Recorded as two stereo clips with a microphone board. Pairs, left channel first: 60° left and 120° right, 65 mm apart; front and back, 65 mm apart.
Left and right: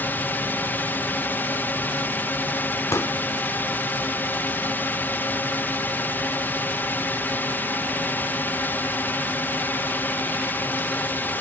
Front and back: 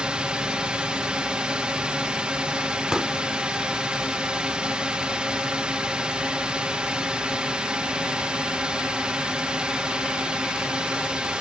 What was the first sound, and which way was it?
A drone, 110° left.